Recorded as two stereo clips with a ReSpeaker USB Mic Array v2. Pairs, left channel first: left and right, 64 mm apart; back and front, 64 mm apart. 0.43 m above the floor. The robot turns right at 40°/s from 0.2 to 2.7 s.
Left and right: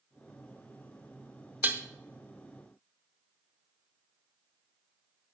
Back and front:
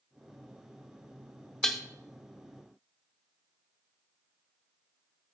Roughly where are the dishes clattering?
Right.